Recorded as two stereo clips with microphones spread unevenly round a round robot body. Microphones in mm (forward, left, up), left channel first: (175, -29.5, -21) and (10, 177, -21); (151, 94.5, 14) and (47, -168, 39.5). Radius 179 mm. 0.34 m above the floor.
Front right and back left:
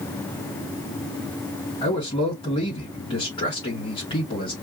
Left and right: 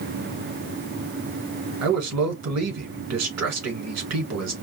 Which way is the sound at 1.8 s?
125° right.